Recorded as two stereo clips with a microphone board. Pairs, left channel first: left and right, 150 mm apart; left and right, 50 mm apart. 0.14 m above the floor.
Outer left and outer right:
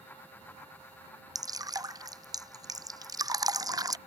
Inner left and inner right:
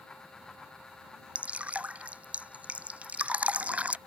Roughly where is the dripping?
Right.